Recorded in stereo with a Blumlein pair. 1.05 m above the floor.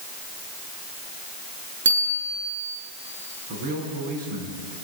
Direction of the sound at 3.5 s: 40° right.